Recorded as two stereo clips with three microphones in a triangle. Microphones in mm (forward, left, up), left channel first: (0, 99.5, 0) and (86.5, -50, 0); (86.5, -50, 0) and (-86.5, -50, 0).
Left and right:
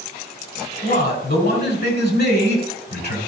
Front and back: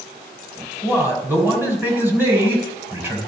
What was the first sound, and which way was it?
A man speaking, 105° left.